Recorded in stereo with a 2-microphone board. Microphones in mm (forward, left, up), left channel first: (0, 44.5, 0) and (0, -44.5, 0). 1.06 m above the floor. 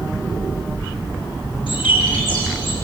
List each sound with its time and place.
1.7 s a bird: 75° left (ahead or behind), 6.5 m